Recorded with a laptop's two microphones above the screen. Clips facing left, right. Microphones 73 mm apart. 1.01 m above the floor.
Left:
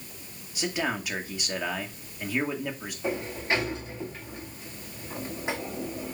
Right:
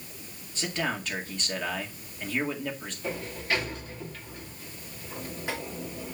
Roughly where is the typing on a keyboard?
No typing on a keyboard in this recording.